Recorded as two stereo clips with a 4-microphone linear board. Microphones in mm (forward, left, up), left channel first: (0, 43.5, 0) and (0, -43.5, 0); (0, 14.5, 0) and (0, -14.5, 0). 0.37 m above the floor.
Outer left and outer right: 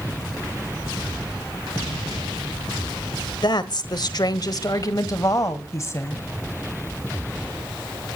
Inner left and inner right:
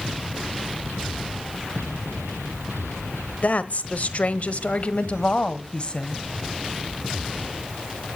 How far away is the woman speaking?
About 1.3 m.